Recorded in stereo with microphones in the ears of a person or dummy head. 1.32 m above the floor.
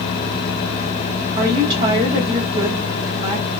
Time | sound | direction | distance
1.4 | a woman speaking | 30° right (ahead or behind) | 0.7 m